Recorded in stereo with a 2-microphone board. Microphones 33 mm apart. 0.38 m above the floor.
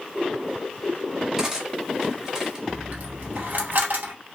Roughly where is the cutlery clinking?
Centre.